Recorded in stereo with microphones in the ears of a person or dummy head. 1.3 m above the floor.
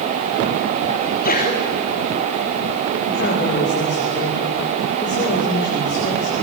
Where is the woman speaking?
55° left (ahead or behind), 5.5 m.